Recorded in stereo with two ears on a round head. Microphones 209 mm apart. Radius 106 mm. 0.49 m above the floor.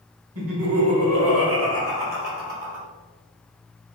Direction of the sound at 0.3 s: 65° right (ahead or behind).